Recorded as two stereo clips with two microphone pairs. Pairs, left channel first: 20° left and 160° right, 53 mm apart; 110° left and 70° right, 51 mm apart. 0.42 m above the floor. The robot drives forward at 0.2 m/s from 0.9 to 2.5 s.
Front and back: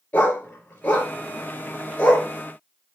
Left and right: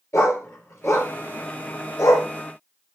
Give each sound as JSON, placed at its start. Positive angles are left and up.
{"t": 0.1, "sound": "a dog barking", "azimuth_deg": 85, "distance_m": 3.0}